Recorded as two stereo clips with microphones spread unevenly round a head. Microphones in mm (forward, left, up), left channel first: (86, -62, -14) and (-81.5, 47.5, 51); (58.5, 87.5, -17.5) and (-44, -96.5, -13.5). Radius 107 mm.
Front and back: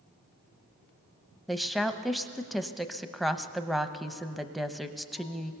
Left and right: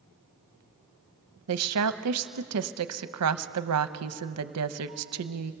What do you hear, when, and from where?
1.5 s a woman speaking: 125° right, 0.8 m